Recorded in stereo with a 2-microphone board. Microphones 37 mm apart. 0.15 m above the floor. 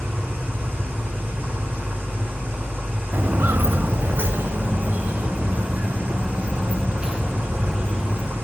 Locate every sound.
0.0 s an engine running: 75° right (ahead or behind), 3.5 m
3.1 s footsteps: 55° right (ahead or behind), 0.7 m; by 8.3 s 25° right (ahead or behind), 3.5 m